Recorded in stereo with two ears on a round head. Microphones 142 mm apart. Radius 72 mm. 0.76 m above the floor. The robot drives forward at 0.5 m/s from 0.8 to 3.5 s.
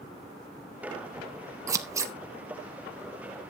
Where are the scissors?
20° right (ahead or behind), 0.7 m.